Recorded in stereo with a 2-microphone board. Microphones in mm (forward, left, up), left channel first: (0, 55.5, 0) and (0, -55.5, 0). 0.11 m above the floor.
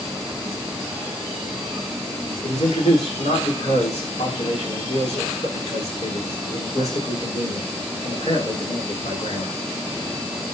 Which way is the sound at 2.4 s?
80° left.